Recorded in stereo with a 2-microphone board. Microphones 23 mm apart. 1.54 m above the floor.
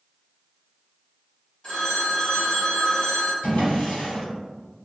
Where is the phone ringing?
35° left (ahead or behind), 1.8 m.